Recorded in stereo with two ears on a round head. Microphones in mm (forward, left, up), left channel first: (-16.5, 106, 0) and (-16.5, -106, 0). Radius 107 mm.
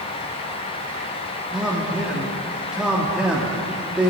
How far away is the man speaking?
About 1.5 m.